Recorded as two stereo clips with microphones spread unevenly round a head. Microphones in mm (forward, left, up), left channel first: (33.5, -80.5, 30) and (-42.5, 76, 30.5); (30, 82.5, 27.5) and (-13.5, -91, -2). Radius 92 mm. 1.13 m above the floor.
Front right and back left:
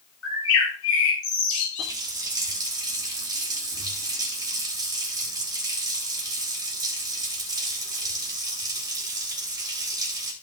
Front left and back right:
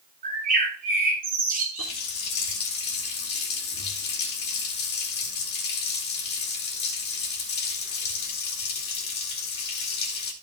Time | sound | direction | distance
0.2 | a bird | 55° right | 3.5 m
1.8 | a running tap | 45° left | 2.0 m